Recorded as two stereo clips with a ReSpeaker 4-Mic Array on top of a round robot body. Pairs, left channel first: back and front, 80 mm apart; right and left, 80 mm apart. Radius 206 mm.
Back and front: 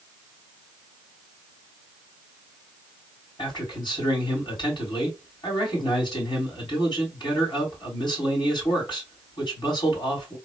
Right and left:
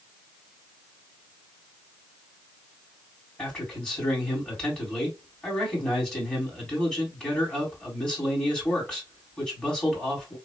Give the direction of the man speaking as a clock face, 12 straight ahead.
6 o'clock.